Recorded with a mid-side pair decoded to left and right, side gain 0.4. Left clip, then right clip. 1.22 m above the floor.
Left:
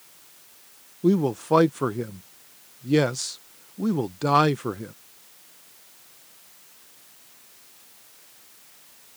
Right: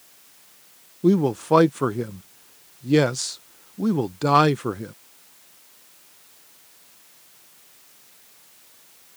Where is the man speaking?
25° right.